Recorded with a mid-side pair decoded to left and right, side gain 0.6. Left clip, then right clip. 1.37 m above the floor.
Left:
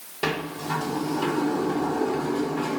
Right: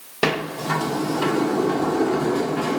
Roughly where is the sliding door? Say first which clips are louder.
Right 5 dB; ahead right.